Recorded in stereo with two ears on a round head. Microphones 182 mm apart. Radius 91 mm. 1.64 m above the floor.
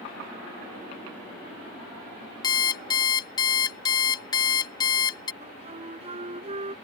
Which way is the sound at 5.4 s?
35° right (ahead or behind).